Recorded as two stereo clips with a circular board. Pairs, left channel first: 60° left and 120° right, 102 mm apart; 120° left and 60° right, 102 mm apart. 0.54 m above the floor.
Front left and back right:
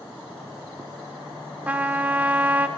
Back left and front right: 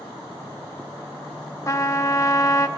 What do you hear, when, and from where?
1.7 s a trumpet: 170° left, 0.9 m